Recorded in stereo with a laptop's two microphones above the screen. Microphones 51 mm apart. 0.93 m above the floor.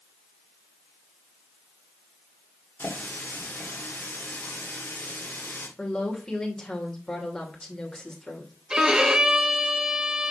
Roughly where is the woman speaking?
Centre.